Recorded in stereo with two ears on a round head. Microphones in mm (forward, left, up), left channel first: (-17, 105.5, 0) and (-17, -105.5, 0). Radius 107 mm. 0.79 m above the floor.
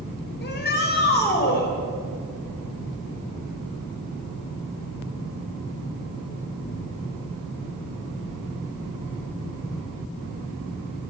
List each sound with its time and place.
0.4 s a shout: 50° left (ahead or behind), 4.5 m